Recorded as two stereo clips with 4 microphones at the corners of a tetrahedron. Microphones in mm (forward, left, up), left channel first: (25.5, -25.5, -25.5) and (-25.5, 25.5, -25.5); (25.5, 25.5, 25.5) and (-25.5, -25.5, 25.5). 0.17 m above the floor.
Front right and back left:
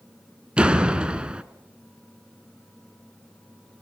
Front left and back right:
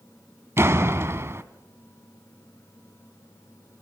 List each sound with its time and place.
0.6 s a door slam: 160° right, 0.9 m